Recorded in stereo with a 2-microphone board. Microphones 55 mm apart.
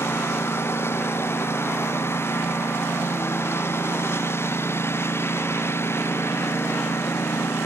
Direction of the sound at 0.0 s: 45° left (ahead or behind).